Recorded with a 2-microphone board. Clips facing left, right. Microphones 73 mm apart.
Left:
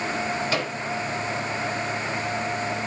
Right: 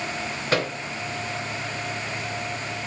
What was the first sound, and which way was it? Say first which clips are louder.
A microwave: right 2 dB; 45° right (ahead or behind).